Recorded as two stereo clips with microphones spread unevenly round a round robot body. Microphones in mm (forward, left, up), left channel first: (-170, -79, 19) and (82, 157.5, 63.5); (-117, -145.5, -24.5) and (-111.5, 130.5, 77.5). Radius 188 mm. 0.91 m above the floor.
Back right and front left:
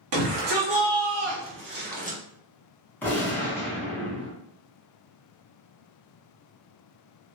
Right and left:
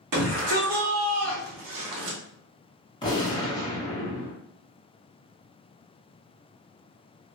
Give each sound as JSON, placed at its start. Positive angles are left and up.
{"t": 0.1, "sound": "a shout", "azimuth_deg": 65, "distance_m": 1.5}
{"t": 3.0, "sound": "a gunshot", "azimuth_deg": -65, "distance_m": 0.9}